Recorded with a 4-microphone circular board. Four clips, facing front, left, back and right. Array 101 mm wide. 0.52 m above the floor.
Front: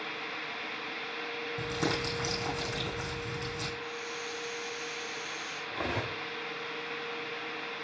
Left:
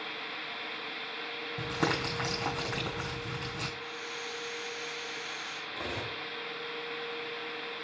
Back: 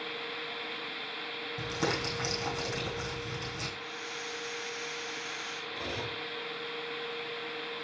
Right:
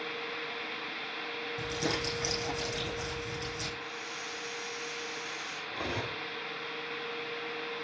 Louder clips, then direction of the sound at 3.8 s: Left 1 dB, front 2 dB; 160° left.